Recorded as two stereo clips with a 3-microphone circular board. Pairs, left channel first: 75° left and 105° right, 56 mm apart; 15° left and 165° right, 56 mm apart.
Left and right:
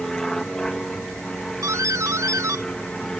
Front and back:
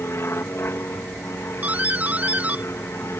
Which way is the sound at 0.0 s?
5° right.